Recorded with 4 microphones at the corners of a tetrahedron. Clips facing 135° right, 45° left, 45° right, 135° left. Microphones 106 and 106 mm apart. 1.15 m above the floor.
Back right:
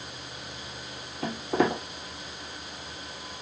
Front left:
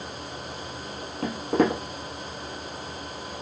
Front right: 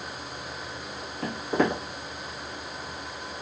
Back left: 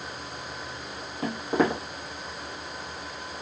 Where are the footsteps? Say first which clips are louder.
Front left 3 dB, back left 1 dB; 60° left, 1.6 m.